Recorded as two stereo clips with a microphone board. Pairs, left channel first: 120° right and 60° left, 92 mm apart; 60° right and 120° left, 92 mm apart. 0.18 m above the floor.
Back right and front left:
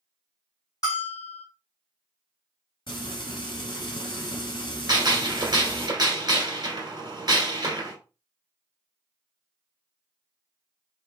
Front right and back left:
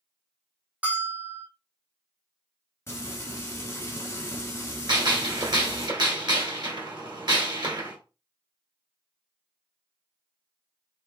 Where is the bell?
165° right, 2 m.